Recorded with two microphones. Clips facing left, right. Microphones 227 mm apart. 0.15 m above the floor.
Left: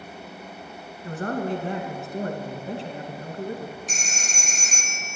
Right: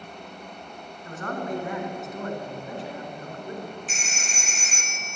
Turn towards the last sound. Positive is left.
turn(degrees=45)  # may be behind; listen again after turning